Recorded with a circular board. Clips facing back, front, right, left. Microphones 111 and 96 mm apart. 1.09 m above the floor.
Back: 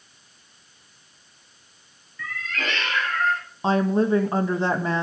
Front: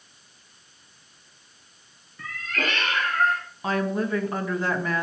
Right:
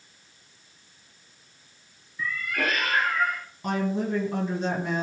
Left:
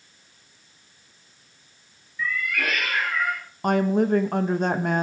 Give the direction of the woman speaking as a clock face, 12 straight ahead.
8 o'clock.